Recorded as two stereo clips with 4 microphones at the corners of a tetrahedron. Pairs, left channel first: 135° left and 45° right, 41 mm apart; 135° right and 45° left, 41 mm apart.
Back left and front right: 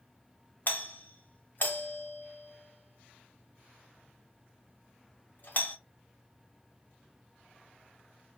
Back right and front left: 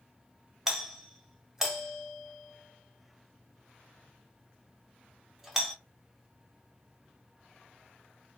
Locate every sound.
0.7 s a doorbell: 125° left, 0.7 m